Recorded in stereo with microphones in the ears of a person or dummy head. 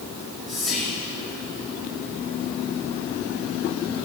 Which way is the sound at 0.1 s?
5° left (ahead or behind).